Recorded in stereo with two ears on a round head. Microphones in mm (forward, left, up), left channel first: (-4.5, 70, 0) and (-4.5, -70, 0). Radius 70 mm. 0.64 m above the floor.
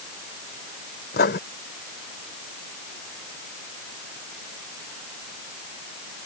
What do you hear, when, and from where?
1.1 s writing: 70° left (ahead or behind)